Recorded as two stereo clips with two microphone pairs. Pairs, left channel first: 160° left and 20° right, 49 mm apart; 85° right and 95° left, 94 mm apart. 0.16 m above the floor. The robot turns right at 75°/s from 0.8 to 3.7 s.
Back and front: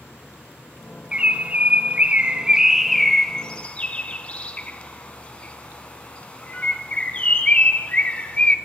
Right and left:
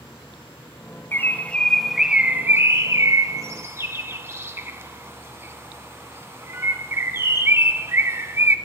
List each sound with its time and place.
1.1 s a bird: 60° right, 0.9 m; by 8.6 s 135° left, 0.9 m